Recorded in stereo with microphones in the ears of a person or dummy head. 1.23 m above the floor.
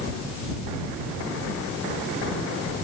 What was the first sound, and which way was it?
Only background noise.